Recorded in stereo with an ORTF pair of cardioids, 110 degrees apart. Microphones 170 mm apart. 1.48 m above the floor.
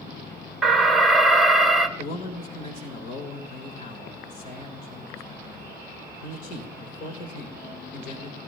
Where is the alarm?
Straight ahead, 1.0 m.